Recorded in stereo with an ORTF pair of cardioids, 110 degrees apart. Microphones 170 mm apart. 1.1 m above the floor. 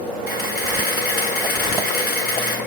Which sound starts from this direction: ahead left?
A camera shutter, at 0.3 s.